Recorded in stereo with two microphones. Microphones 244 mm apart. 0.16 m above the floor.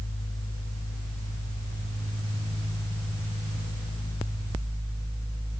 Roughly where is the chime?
I don't hear a chime.